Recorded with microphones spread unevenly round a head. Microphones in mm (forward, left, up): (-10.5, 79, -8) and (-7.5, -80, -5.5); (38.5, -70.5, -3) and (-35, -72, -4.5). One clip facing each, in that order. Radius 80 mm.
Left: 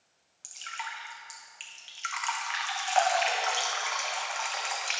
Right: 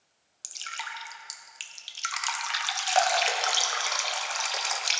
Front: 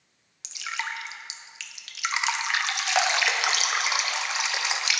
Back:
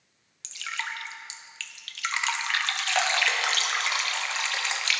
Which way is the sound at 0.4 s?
70° right.